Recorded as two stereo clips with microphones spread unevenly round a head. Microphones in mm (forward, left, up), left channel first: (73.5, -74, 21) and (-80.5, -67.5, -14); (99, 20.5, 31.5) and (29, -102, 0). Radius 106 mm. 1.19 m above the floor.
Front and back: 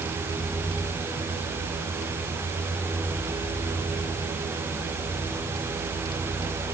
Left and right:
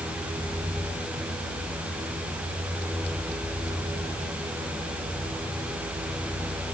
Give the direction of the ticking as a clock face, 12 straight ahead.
No ticking in this recording.